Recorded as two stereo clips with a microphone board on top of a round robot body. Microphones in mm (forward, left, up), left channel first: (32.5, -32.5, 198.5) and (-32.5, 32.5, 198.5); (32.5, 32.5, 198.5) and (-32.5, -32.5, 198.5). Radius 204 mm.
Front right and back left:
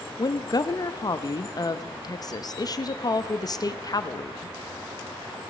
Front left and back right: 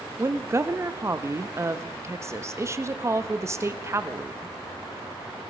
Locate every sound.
0.2 s a woman speaking: 80° right, 1.1 m